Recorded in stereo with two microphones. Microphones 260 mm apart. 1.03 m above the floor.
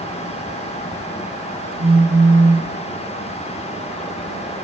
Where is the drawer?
No drawer in this recording.